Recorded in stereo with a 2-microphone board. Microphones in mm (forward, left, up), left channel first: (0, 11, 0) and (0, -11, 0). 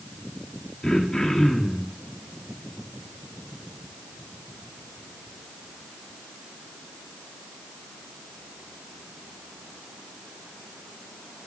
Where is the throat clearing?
35° left (ahead or behind), 2 m.